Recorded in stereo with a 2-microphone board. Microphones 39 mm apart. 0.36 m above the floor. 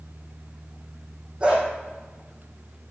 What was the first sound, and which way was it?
A dog barking, 25° right (ahead or behind).